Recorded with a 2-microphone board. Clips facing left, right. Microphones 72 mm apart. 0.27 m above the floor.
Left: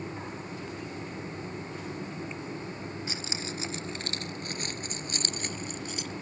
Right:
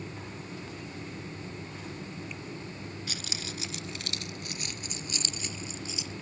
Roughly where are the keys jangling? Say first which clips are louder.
Left 3 dB; left.